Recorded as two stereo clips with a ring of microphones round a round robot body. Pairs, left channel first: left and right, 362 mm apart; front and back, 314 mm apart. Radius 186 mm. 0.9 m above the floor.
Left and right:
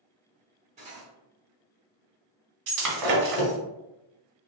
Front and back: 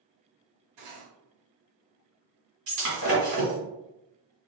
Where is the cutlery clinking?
160° right, 1.4 m.